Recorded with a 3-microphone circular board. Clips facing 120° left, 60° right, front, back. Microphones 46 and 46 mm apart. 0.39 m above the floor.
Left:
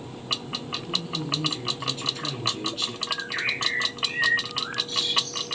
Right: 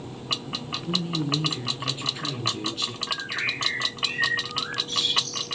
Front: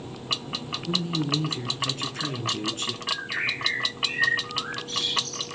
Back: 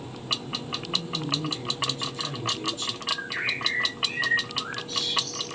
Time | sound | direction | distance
0.9 | a man speaking | 10° right | 4 m
3.1 | a bird | 15° right | 5.5 m